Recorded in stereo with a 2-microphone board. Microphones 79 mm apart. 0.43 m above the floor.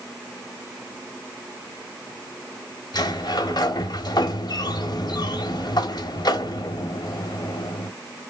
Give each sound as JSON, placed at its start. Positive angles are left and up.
{"t": 2.9, "sound": "a sliding door", "side_deg": 60, "distance_m": 1.0}